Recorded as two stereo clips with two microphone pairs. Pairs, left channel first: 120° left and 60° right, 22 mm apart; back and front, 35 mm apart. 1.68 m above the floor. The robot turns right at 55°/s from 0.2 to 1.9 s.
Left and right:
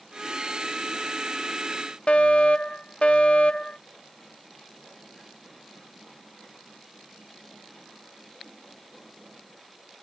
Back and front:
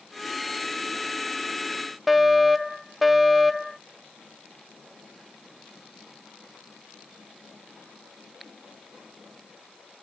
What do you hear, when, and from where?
2.1 s a fire alarm: 90° left